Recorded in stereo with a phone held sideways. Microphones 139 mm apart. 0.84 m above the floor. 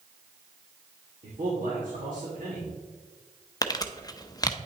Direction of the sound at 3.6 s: 30° left (ahead or behind).